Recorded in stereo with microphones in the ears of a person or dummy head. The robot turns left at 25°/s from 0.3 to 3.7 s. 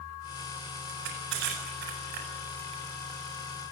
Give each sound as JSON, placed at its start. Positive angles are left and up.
{"t": 0.9, "sound": "crushing", "side_deg": -75, "distance_m": 8.0}